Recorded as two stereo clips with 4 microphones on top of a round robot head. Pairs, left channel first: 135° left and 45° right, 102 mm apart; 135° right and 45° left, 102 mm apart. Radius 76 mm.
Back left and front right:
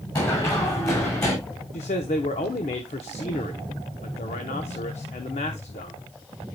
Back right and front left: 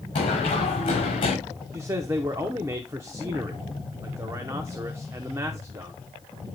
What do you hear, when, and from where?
0.1 s running footsteps: 170° right, 7 m
1.7 s a man speaking: 110° left, 0.8 m